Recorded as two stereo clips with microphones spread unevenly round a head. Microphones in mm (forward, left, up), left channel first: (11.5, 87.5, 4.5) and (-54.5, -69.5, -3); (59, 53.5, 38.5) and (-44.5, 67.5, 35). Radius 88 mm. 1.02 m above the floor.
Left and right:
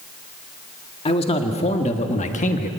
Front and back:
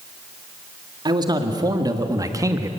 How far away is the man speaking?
About 2 m.